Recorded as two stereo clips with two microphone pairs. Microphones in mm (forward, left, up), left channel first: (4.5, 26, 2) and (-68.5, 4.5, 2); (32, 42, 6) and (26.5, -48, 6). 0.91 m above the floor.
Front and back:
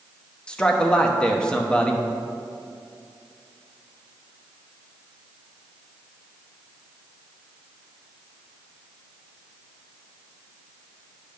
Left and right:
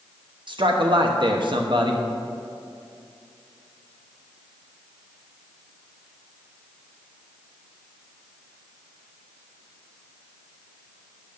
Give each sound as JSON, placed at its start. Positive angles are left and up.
{"t": 0.5, "sound": "a man speaking", "azimuth_deg": -65, "distance_m": 0.8}